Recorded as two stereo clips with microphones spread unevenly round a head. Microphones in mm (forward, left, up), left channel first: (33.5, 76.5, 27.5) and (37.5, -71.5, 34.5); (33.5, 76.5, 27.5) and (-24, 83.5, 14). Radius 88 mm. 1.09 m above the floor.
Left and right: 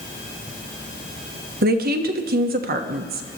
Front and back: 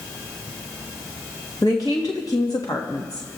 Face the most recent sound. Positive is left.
turn(degrees=-70)